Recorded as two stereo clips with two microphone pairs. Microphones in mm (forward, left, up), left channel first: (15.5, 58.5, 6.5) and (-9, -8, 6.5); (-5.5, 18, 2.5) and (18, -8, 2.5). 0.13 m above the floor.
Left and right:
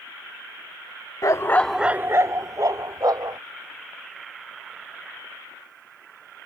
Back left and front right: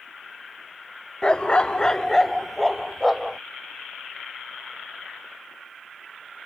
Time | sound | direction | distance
1.2 | a dog barking | 75° left | ?